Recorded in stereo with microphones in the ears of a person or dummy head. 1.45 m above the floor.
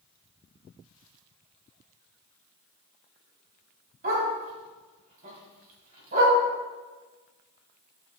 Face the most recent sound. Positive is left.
turn(degrees=-45)  # may be behind; listen again after turning